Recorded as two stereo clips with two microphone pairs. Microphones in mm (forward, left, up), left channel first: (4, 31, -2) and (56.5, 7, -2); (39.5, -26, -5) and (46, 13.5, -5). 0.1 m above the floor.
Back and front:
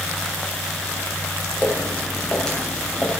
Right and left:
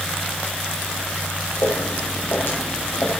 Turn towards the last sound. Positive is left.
turn(degrees=-140)